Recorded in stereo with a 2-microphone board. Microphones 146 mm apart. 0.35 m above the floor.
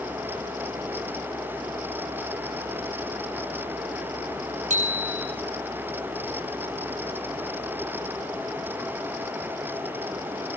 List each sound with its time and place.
4.7 s a bicycle bell: 65° right (ahead or behind), 8.5 m